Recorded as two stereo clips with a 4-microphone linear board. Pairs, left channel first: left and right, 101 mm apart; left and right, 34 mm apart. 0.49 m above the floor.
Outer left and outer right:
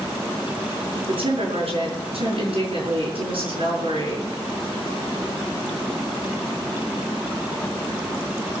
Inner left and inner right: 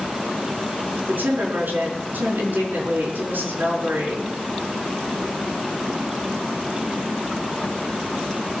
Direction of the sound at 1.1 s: 65° right (ahead or behind).